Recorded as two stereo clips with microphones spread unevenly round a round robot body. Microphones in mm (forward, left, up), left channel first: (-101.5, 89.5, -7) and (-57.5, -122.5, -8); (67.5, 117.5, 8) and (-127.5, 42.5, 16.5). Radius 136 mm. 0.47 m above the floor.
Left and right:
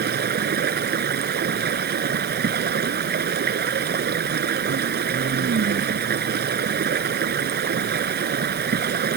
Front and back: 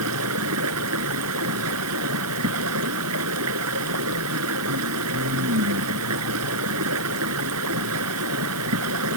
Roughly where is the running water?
Behind right.